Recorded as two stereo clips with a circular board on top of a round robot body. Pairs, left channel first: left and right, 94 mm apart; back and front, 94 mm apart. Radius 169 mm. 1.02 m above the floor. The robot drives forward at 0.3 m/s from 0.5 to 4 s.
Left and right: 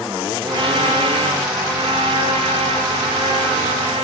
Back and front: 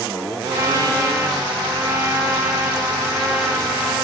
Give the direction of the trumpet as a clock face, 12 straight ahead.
2 o'clock.